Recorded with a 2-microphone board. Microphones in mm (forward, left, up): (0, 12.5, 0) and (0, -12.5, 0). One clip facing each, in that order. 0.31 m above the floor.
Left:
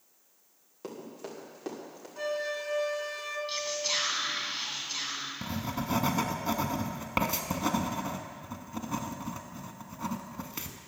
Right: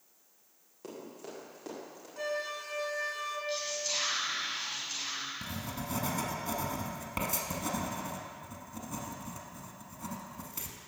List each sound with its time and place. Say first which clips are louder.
0.8 s running footsteps: left 3 dB; 15° left (ahead or behind), 3.5 m
2.2 s a flute: left 3 dB; 5° left (ahead or behind), 1.2 m
3.5 s whispering: left 5 dB; 40° left (ahead or behind), 2.5 m
5.4 s writing: left 5 dB; 35° left (ahead or behind), 0.8 m